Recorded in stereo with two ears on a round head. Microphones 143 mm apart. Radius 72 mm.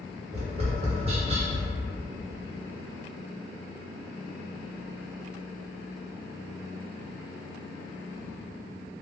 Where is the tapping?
35° right (ahead or behind), 0.8 m.